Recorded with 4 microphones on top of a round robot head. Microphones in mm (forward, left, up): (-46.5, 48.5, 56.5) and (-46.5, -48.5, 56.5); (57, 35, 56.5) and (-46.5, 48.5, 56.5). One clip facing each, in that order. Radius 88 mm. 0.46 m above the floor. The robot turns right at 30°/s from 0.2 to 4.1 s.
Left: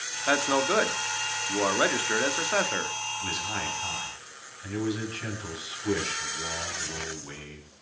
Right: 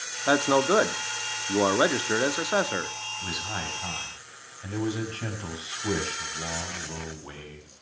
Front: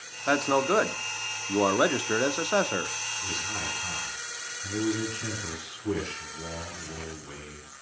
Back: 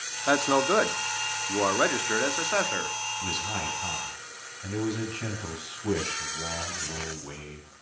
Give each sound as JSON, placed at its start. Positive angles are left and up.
{"t": 0.3, "sound": "a man speaking", "azimuth_deg": -110, "distance_m": 0.9}
{"t": 3.2, "sound": "a man speaking", "azimuth_deg": -165, "distance_m": 4.5}